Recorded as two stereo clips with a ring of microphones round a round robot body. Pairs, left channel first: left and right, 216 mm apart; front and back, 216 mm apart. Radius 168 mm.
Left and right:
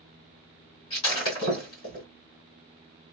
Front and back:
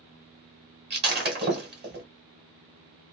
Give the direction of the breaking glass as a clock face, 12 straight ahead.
7 o'clock.